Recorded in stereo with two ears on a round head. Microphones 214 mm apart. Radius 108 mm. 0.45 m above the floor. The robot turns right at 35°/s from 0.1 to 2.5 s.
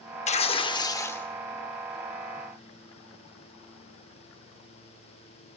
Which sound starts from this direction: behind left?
Tearing paper, at 0.3 s.